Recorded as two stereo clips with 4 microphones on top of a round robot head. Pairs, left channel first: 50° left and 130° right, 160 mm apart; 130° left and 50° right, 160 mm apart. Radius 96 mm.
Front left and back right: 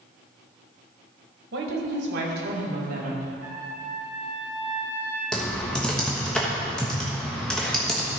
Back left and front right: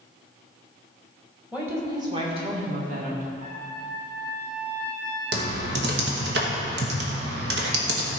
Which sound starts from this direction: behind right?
A woman speaking, at 1.5 s.